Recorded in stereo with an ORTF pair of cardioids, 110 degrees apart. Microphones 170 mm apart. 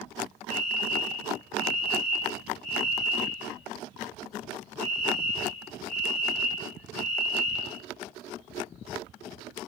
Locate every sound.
0.5 s a fire alarm: 60° left, 5 m